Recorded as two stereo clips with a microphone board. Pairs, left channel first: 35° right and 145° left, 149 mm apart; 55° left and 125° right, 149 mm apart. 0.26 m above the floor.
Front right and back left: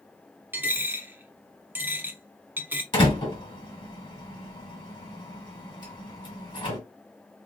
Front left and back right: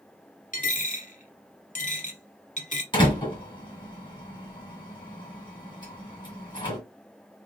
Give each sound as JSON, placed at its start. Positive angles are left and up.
{"t": 0.5, "sound": "a dropped coin", "azimuth_deg": 70, "distance_m": 0.9}
{"t": 2.9, "sound": "a door slam", "azimuth_deg": 10, "distance_m": 1.7}